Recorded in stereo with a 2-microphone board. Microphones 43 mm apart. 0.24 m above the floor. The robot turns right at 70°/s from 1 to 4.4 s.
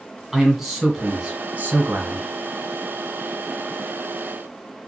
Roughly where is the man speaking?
Behind.